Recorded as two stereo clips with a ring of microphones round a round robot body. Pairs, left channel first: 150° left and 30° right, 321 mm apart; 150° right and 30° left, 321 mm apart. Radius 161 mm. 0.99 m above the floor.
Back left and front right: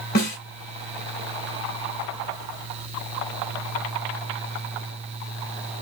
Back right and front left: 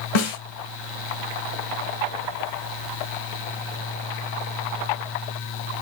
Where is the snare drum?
145° right, 3 m.